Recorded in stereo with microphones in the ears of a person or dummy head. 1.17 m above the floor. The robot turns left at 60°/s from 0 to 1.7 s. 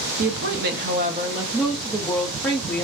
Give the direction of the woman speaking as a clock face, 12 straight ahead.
3 o'clock.